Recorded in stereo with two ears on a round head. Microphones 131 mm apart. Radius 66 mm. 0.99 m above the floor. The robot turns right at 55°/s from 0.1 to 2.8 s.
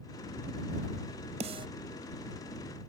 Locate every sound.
1.4 s a snare drum: 45° right (ahead or behind); by 1.7 s 30° right (ahead or behind)